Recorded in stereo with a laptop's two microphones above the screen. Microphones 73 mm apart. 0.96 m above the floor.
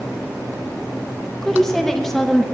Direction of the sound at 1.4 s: 5° left (ahead or behind).